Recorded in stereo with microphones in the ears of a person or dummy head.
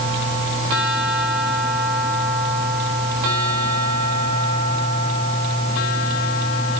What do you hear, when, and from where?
Only background noise.